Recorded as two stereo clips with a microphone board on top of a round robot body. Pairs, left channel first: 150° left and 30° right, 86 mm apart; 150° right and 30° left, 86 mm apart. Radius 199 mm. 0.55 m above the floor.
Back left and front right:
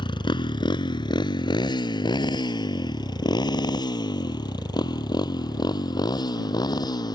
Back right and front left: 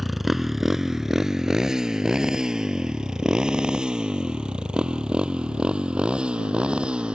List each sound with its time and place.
0.0 s a motorcycle: 120° left; by 7.2 s 110° left